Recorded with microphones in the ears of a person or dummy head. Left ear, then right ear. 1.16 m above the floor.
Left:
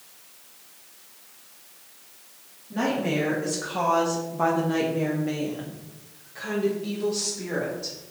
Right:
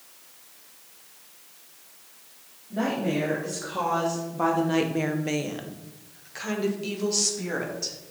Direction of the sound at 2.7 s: 30° left (ahead or behind).